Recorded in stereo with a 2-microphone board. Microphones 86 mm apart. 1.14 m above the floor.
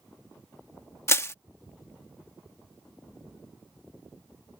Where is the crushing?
30° left (ahead or behind).